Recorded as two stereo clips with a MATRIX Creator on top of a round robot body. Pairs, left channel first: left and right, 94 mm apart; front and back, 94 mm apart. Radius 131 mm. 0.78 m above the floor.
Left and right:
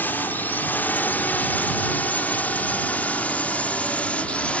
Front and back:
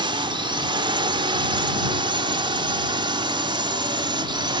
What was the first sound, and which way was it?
A drone, 160° left.